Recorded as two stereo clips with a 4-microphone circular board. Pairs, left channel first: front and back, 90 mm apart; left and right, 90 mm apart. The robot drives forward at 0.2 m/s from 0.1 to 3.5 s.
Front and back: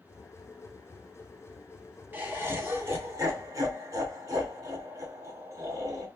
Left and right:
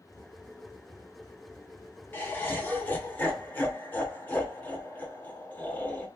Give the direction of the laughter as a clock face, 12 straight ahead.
8 o'clock.